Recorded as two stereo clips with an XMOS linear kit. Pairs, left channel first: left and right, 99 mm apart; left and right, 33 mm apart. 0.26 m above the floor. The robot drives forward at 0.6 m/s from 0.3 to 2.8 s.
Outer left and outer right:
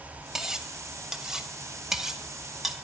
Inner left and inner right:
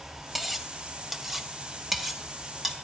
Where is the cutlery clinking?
5° right (ahead or behind), 0.8 m.